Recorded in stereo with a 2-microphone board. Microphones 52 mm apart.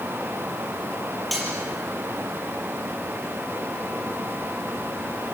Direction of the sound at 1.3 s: Centre (ahead or behind).